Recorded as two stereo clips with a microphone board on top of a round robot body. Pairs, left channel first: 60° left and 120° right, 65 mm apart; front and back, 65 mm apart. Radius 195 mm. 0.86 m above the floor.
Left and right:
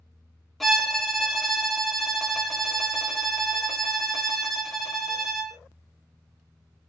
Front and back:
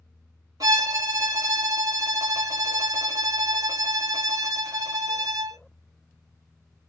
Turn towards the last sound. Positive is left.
turn(degrees=150)